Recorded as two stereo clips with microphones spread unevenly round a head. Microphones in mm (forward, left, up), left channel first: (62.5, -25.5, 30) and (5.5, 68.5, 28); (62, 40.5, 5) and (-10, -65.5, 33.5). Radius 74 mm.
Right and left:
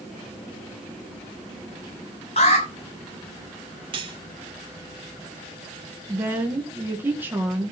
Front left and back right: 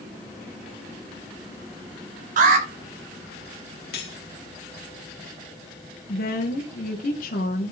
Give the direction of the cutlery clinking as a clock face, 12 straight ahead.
9 o'clock.